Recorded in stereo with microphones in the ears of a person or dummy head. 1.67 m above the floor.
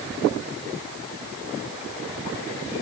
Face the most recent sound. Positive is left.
No sound to turn to.